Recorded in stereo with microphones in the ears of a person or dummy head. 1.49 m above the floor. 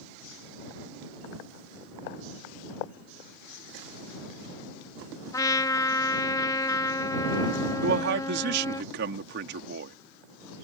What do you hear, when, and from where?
5.3 s a trumpet: 20° left (ahead or behind)
7.8 s a man speaking: 65° right (ahead or behind)